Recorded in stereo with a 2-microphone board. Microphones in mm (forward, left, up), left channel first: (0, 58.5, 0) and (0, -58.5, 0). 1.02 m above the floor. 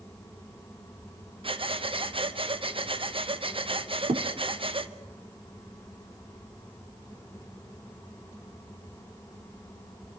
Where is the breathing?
50° right (ahead or behind), 0.9 m.